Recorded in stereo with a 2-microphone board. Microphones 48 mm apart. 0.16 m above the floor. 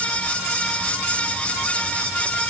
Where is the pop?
No pop in this recording.